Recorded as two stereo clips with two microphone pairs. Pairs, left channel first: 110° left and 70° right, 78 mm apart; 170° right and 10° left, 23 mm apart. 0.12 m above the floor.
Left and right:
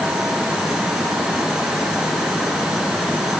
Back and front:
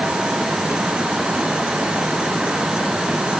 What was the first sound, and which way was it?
Only background noise.